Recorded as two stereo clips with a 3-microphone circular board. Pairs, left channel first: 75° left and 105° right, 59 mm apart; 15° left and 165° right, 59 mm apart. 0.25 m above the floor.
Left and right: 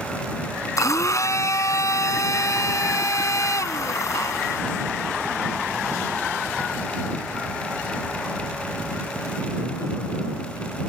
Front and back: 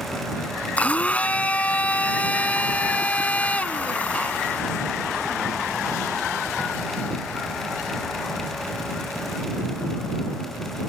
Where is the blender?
80° left.